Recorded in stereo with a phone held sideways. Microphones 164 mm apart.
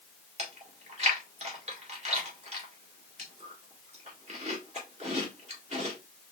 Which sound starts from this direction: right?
Chewing, at 0.4 s.